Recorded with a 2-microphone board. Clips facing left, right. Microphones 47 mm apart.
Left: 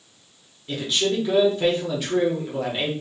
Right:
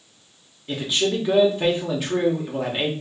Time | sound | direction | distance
0.7 | a man speaking | 15° right (ahead or behind) | 0.9 m